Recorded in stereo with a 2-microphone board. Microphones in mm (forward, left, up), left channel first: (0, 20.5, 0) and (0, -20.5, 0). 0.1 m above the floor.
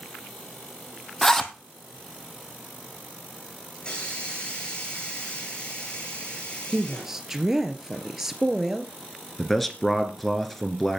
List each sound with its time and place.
1.2 s a zipper: 10° left (ahead or behind), 1.3 m
3.8 s a hiss: 25° left (ahead or behind), 6 m
6.7 s a woman speaking: 10° right (ahead or behind), 1.5 m
9.4 s a man speaking: 5° left (ahead or behind), 1.6 m